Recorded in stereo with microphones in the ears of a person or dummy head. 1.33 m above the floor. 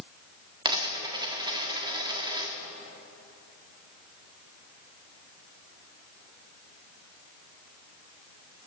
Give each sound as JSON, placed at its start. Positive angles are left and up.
{"t": 0.7, "sound": "a dropped coin", "side_deg": -25, "distance_m": 1.4}